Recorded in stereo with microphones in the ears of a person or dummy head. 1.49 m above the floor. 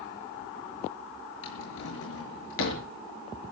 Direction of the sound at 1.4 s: 80° left.